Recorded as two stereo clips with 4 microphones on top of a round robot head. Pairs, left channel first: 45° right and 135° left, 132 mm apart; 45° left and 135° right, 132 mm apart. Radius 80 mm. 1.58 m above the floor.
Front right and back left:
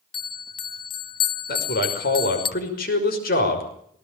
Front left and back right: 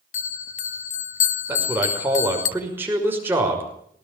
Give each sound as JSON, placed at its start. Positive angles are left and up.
{"t": 0.1, "sound": "a bell", "azimuth_deg": 10, "distance_m": 0.8}
{"t": 1.5, "sound": "a man speaking", "azimuth_deg": -60, "distance_m": 5.5}